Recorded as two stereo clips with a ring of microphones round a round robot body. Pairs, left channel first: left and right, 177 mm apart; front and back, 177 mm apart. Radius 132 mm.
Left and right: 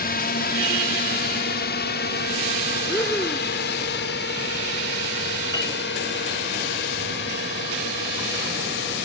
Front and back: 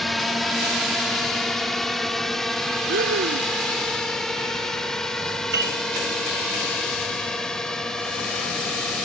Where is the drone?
90° left; by 9.1 s 85° left.